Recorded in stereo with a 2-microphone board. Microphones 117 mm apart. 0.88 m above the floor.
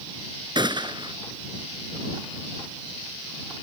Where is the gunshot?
40° right (ahead or behind).